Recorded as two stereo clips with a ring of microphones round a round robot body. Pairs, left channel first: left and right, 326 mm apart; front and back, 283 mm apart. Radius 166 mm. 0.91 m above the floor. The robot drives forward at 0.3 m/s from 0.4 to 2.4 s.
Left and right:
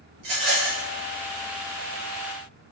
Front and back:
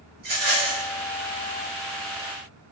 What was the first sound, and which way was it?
A rattle, 120° right.